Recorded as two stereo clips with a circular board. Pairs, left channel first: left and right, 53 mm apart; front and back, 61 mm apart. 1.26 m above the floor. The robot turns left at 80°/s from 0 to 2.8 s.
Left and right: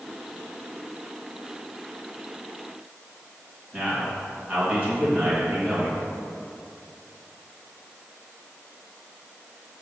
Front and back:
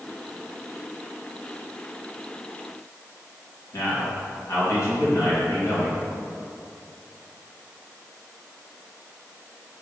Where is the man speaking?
30° right, 1.8 m.